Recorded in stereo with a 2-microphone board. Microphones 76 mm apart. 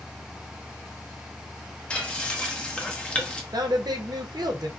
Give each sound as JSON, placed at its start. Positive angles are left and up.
{"t": 1.9, "sound": "frying", "side_deg": 15, "distance_m": 0.6}
{"t": 3.5, "sound": "a woman speaking", "side_deg": -60, "distance_m": 0.6}